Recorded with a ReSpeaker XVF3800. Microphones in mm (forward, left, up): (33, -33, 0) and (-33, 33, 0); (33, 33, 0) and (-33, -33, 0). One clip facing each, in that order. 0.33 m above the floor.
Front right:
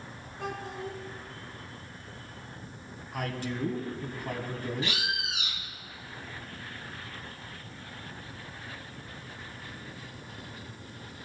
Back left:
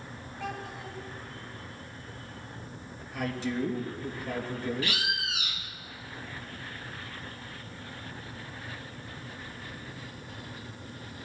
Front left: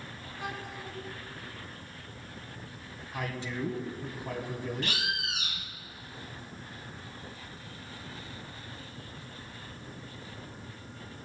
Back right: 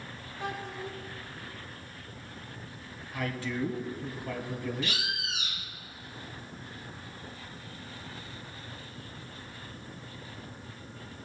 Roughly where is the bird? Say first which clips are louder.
Back left 1 dB, front left 1 dB; ahead.